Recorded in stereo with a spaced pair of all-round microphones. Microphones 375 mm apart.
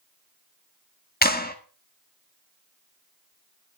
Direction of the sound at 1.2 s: 25° left (ahead or behind).